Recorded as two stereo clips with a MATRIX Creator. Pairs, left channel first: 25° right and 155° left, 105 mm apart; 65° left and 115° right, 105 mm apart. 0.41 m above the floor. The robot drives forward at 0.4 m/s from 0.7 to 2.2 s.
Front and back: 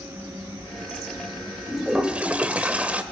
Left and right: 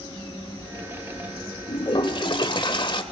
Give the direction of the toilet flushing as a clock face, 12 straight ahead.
10 o'clock.